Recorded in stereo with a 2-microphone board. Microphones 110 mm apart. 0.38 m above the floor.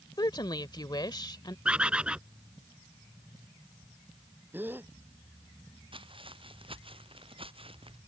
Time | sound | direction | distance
0.2 | a woman speaking | 40° left (ahead or behind) | ?
1.6 | a bird | 10° right (ahead or behind) | ?
4.5 | a gasp | 20° right (ahead or behind) | ?
5.9 | footsteps | 50° right (ahead or behind) | ?